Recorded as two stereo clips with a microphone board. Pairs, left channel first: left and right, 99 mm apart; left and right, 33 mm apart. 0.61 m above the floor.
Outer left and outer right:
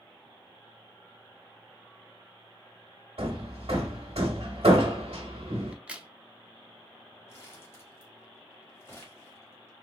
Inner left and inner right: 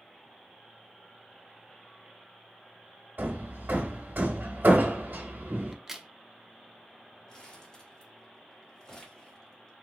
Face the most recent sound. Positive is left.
turn(degrees=25)  # may be behind; listen again after turning